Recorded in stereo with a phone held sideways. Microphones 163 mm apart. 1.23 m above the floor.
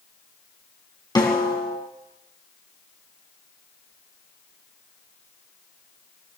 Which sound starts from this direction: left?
A snare drum, at 1.1 s.